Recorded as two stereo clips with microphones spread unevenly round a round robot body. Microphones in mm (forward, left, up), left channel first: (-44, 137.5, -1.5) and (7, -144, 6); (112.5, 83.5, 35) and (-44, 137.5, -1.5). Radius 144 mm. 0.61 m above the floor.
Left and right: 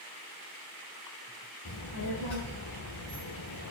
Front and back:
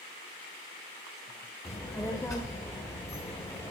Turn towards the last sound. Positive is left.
turn(degrees=60)